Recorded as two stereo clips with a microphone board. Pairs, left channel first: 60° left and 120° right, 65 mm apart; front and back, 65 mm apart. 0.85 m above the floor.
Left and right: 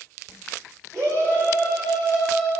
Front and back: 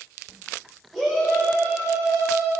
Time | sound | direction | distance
0.9 | a shout | 85° right | 2.5 m